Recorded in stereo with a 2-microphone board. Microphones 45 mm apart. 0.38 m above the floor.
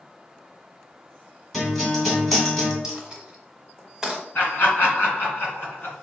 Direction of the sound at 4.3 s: 45° left (ahead or behind).